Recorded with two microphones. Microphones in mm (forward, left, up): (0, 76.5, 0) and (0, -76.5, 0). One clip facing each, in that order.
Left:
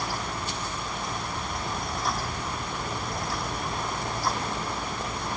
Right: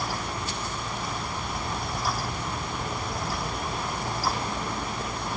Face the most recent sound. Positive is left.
No sound to turn to.